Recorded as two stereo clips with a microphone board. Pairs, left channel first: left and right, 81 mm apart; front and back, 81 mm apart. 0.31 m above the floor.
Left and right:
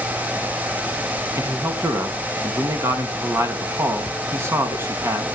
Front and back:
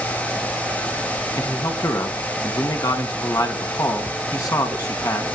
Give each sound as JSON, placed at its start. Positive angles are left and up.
{"t": 1.3, "sound": "a man speaking", "azimuth_deg": -40, "distance_m": 3.5}